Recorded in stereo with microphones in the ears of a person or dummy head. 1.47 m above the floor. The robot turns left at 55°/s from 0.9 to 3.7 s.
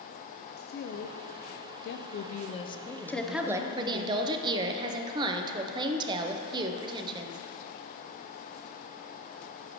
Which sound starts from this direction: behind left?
A woman speaking, at 0.6 s.